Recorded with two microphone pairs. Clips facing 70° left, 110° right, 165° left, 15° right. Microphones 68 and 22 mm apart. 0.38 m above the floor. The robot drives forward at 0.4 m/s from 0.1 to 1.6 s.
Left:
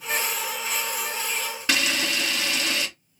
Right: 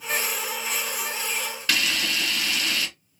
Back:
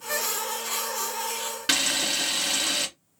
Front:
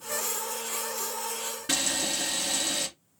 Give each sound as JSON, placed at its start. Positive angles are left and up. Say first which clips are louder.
{"t": 1.7, "sound": "a camera shutter", "louder": "left 1 dB, back 5 dB", "azimuth_deg": 135, "distance_m": 2.5}